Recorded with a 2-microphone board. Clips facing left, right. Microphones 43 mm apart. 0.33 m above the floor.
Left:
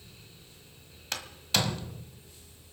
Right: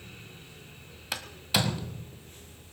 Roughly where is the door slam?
Centre.